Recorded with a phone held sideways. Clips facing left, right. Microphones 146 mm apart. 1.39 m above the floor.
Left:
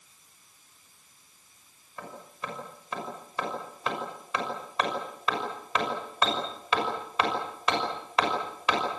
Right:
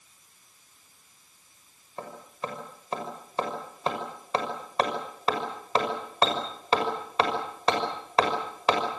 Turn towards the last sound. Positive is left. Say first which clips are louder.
# right 4 dB
turn(degrees=-35)  # may be behind; listen again after turning